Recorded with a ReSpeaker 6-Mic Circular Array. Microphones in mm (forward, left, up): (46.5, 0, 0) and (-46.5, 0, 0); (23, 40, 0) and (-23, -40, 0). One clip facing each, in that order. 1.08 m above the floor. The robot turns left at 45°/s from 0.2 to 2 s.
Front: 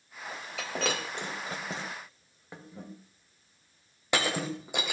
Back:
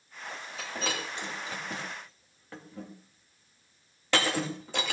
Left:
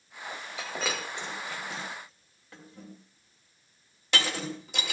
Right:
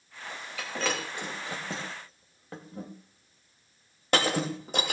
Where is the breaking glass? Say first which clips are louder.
Front 3 dB, right 2 dB; 10° right, 2.5 m; by 4.9 s 75° right, 2.5 m.